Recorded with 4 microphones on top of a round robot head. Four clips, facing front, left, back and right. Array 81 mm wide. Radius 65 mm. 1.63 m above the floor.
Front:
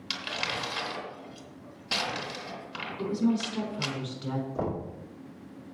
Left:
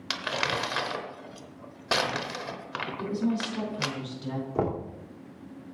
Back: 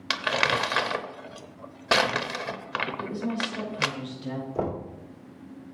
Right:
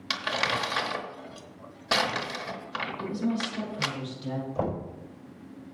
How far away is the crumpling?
About 0.9 m.